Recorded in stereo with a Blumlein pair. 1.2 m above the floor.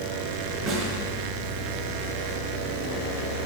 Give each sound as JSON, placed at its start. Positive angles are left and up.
{"t": 0.7, "sound": "a snare drum", "azimuth_deg": -20, "distance_m": 4.5}